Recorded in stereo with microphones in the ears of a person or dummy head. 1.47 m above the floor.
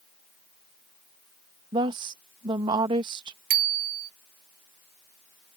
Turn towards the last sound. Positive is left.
turn(degrees=-40)  # may be behind; listen again after turning